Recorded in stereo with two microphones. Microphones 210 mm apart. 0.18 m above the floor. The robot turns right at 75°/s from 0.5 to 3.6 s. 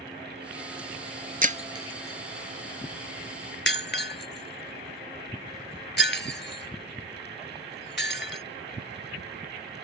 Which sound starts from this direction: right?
Breaking glass, at 1.4 s.